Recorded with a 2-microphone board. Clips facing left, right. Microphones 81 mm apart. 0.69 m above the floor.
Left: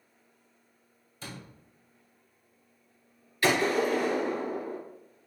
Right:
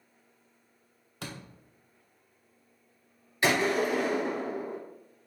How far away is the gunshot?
About 2 m.